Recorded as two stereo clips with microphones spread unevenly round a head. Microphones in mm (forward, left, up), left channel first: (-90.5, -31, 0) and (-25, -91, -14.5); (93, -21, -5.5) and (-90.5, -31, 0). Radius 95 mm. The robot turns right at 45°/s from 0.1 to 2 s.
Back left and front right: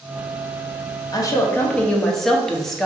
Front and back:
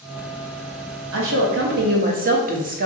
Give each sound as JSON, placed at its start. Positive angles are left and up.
{"t": 1.1, "sound": "a woman speaking", "azimuth_deg": -175, "distance_m": 0.9}